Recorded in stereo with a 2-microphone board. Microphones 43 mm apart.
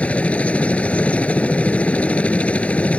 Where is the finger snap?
I don't hear a finger snap.